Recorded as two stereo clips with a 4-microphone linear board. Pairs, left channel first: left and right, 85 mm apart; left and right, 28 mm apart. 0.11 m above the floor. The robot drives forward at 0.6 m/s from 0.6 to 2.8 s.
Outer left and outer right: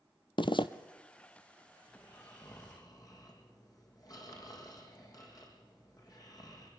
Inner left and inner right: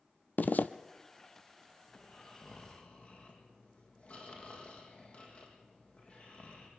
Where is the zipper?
70° left (ahead or behind), 0.9 m; by 0.7 s 75° left (ahead or behind), 0.9 m.